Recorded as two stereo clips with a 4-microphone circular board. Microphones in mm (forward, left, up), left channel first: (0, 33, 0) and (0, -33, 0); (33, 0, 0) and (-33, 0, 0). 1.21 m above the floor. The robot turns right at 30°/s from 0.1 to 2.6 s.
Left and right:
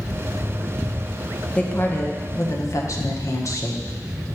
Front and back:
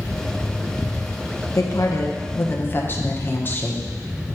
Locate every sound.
1.6 s a woman speaking: 25° left, 1.0 m; by 3.8 s 55° left, 1.0 m